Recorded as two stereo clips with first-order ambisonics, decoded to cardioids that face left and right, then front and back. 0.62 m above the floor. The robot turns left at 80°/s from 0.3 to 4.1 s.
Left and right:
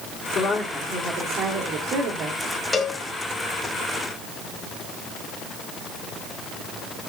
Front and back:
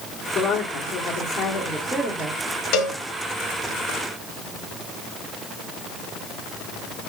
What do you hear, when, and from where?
0.3 s a woman speaking: 55° left, 1.8 m; by 2.4 s 110° right, 1.8 m
2.7 s a cowbell: 15° left, 1.0 m; by 3.0 s 5° right, 1.0 m